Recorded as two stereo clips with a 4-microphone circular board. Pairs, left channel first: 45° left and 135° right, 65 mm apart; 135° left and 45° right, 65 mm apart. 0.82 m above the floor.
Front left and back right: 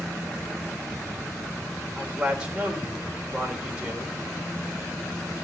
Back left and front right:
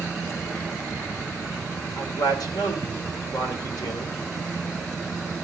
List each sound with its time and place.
2.0 s a man speaking: 150° left, 3.5 m